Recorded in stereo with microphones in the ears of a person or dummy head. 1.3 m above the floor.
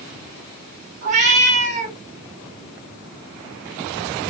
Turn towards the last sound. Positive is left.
turn(degrees=-45)  # may be behind; listen again after turning